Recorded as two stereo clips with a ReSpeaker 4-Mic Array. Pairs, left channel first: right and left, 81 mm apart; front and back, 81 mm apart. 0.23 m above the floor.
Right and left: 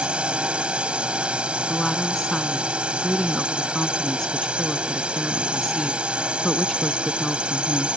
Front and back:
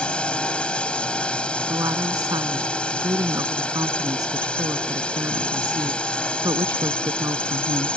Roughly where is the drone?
Ahead left.